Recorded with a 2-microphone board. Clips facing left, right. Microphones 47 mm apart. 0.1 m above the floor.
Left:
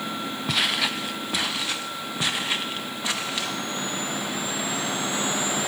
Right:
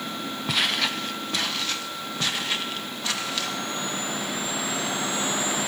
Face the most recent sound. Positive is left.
turn(degrees=20)  # may be behind; listen again after turning